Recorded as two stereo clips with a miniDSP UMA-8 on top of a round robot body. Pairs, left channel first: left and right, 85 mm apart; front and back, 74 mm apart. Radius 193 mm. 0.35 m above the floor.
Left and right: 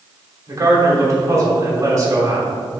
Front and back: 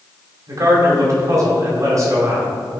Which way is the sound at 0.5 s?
140° right.